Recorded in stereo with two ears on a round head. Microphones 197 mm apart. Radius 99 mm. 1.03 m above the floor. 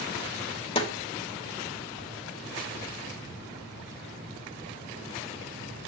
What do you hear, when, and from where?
0.8 s a snare drum: 25° left (ahead or behind), 2.5 m